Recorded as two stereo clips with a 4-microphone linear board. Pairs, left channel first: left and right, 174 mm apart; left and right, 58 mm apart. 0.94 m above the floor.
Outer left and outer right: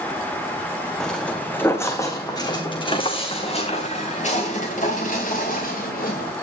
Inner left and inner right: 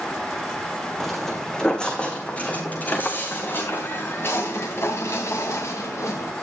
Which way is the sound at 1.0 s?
5° left (ahead or behind).